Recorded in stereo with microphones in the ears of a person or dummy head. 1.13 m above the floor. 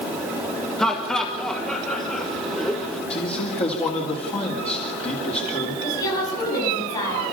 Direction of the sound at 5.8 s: 20° left (ahead or behind).